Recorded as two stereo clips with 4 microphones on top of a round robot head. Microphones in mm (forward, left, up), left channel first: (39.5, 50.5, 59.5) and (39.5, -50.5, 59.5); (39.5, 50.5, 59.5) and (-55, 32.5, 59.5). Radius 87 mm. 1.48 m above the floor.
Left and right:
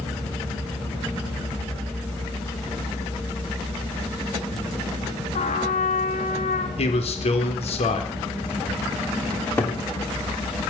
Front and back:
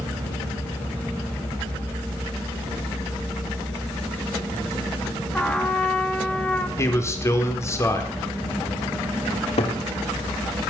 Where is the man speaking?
70° left, 3.5 m.